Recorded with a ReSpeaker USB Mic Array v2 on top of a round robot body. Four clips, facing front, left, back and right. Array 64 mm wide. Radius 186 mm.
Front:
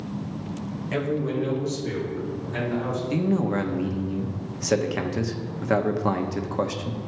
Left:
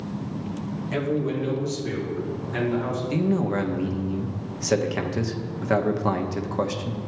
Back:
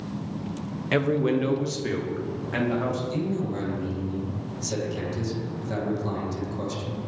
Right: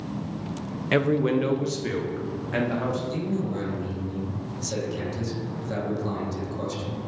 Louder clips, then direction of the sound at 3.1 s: Left 5 dB, front 4 dB; 45° left.